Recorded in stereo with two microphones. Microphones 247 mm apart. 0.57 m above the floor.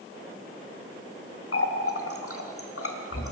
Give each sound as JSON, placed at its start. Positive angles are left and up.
{"t": 1.5, "sound": "a running tap", "side_deg": 65, "distance_m": 1.0}